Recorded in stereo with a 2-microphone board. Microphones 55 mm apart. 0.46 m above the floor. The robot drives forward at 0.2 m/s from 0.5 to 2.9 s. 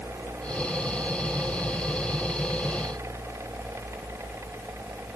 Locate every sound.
Only background noise.